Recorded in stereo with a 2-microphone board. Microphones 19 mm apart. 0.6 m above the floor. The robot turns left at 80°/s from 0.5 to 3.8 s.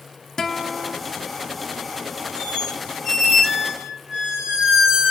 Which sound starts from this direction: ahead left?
A guitar, at 0.4 s.